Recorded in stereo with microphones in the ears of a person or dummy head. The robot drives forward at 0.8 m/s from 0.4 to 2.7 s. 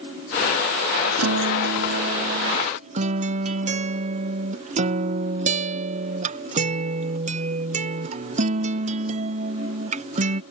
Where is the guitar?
80° right; by 10.4 s 35° right (ahead or behind).